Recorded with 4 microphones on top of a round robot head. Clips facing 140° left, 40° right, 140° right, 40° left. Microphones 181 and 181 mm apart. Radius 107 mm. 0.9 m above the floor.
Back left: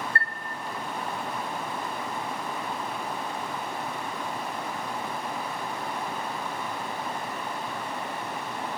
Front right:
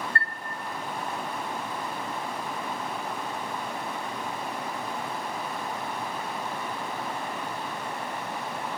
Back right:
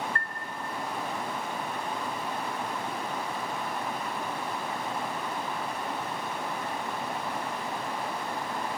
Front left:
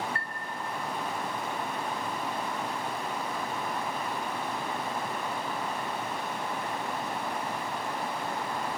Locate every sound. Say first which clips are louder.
0.1 s a chime: even, back right 2 dB; 125° left, 0.9 m